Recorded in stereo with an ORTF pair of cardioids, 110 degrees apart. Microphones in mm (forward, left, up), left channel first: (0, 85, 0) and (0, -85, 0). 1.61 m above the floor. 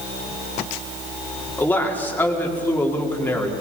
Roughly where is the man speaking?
Ahead.